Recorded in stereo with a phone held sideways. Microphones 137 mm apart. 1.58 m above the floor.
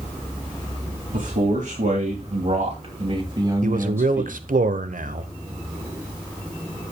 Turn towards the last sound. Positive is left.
turn(degrees=-75)  # may be behind; listen again after turning